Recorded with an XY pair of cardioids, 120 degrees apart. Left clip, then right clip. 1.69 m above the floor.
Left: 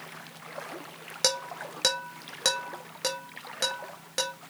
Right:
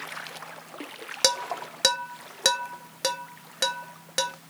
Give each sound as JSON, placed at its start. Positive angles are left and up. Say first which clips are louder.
{"t": 1.2, "sound": "dishes clattering", "louder": "right 3 dB", "azimuth_deg": -20, "distance_m": 2.0}